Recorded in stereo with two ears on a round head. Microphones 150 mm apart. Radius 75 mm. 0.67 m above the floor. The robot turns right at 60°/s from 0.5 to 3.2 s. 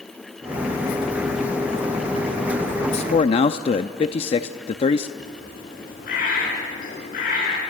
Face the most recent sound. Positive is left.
turn(degrees=50)  # may be behind; listen again after turning